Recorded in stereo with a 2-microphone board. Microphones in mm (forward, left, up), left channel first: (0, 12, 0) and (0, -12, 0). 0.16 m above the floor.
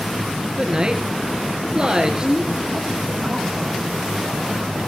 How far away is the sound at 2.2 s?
About 4 m.